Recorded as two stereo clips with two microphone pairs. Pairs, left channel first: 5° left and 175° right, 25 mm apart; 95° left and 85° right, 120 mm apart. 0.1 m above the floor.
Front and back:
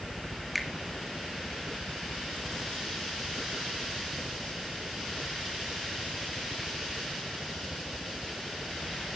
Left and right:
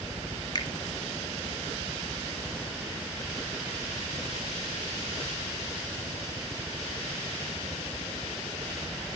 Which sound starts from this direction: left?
A finger snap, at 0.6 s.